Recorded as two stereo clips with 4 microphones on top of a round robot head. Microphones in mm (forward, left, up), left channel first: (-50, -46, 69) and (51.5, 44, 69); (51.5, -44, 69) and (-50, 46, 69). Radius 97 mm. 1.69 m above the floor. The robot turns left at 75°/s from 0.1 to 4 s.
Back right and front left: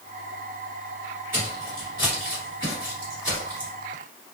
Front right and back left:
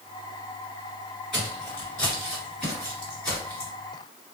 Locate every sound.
1.3 s footsteps: 50° left, 1.9 m; by 3.7 s straight ahead, 1.8 m